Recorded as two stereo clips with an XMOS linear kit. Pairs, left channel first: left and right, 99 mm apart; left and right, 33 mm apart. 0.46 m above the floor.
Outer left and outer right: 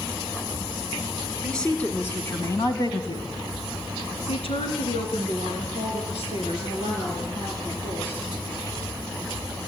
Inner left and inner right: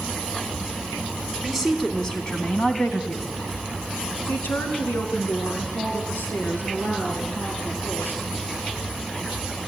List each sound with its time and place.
1.4 s a woman speaking: 5° left (ahead or behind), 3 m; by 8.2 s 80° left, 8 m